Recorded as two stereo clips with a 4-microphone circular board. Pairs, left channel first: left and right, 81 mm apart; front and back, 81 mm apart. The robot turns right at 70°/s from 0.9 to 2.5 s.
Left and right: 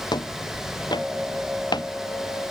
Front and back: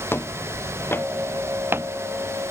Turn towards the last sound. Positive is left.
turn(degrees=175)